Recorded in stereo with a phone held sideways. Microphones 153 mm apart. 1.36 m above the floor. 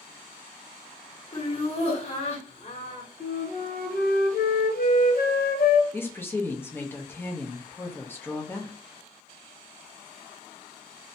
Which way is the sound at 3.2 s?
75° left (ahead or behind).